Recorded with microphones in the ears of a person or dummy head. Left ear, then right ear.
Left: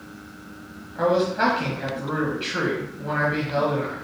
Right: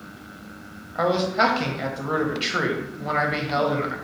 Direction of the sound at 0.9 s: 35° right (ahead or behind).